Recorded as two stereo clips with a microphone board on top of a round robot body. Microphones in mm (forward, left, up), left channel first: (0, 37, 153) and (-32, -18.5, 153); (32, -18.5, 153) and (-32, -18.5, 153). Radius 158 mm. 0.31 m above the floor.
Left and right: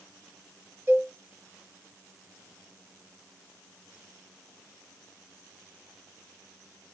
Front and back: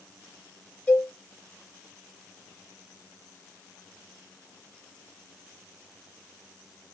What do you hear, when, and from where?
0.9 s a cowbell: 65° right, 1.7 m